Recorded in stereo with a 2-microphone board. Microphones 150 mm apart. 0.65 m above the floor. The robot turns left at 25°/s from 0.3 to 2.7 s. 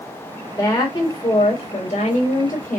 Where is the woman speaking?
150° left, 2 m; by 2.8 s 100° left, 2 m.